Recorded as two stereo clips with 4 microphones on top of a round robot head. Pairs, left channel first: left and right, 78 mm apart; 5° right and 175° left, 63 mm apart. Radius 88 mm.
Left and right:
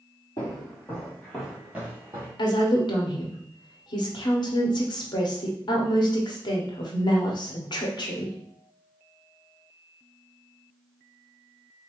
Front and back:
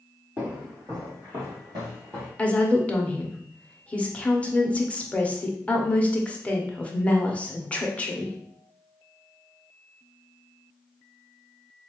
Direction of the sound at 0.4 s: 125° left.